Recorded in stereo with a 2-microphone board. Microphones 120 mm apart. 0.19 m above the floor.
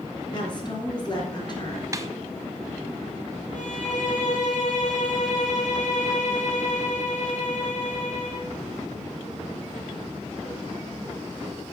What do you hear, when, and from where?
0.3 s a woman speaking: 35° left (ahead or behind), 3 m
1.9 s a snare drum: 25° right (ahead or behind), 0.7 m
3.5 s a violin: 70° left (ahead or behind), 3.5 m